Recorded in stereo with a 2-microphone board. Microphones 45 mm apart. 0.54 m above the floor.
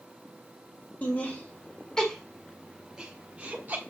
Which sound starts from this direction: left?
Laughter, at 1.0 s.